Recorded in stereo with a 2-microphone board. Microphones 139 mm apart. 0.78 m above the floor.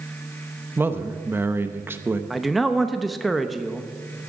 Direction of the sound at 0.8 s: 15° right (ahead or behind).